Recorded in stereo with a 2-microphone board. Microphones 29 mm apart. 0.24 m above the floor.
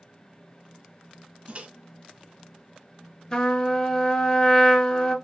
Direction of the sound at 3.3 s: 30° left (ahead or behind).